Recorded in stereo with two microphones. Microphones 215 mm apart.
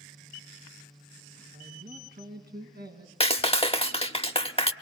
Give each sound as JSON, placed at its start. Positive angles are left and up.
{"t": 1.5, "sound": "a man speaking", "side_deg": -50, "distance_m": 3.0}
{"t": 3.2, "sound": "a clap", "side_deg": 25, "distance_m": 0.8}